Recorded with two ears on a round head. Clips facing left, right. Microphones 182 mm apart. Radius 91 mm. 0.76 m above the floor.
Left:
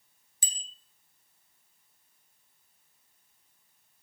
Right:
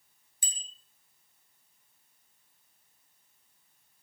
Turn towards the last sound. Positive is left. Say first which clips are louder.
# left 2 dB
turn(degrees=60)  # may be behind; listen again after turning